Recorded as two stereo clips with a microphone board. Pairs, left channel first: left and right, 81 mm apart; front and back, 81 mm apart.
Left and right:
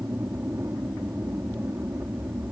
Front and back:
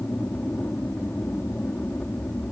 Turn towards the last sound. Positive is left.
turn(degrees=-60)